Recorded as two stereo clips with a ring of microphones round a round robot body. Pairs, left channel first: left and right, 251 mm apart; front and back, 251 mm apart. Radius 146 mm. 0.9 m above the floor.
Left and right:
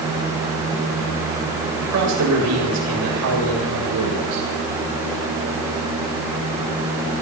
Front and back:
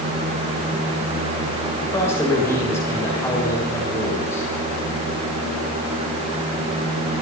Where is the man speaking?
80° right, 7.5 m.